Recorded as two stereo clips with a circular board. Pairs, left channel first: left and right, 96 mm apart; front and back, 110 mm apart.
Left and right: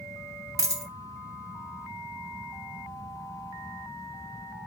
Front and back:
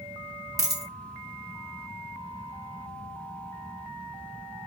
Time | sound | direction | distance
0.6 | a dropped coin | 130° right | 0.8 m